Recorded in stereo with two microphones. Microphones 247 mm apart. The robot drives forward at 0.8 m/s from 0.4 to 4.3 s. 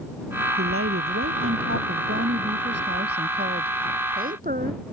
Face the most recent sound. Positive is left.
turn(degrees=-35)  # may be behind; listen again after turning